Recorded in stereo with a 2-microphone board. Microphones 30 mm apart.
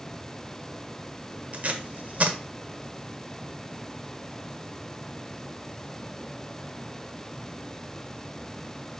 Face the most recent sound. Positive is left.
turn(degrees=-55)  # may be behind; listen again after turning